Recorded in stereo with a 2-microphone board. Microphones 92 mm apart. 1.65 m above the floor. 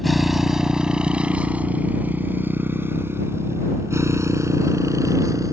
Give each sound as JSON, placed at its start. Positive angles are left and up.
{"t": 0.0, "sound": "a motorcycle", "side_deg": 0}